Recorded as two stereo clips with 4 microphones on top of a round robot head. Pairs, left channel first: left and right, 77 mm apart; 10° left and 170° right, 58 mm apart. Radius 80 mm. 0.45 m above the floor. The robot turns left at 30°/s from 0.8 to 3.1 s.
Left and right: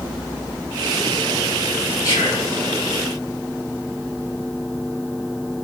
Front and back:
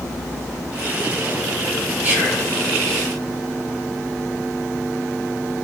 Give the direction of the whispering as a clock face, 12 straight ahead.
8 o'clock.